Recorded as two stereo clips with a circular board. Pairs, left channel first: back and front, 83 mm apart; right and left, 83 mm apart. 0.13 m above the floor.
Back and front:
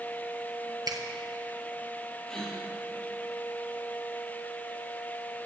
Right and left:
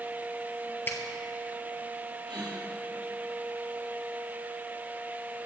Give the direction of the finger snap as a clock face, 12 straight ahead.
1 o'clock.